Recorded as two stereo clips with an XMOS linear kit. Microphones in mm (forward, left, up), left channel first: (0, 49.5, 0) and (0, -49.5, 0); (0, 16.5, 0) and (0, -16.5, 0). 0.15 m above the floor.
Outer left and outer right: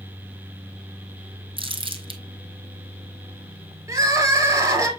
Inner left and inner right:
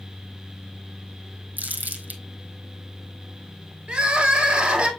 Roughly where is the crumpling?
Right.